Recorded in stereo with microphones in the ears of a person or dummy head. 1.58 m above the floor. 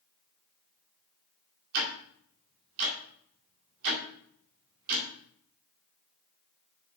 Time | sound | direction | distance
1.7 | ticking | 55° right (ahead or behind) | 1.9 m